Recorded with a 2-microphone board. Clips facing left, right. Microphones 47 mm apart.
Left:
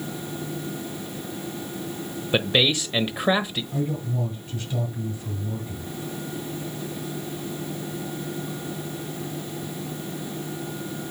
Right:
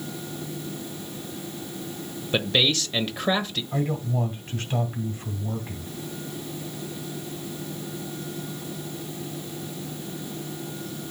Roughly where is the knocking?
No knocking in this recording.